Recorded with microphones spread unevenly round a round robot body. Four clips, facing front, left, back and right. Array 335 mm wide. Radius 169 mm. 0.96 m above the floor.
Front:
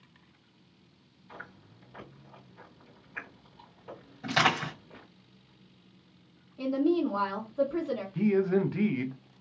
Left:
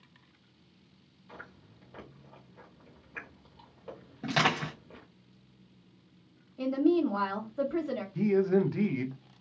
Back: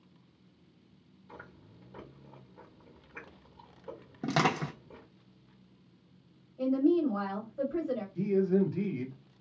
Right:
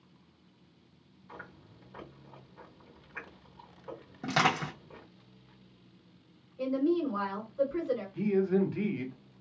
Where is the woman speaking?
70° left, 1.5 m.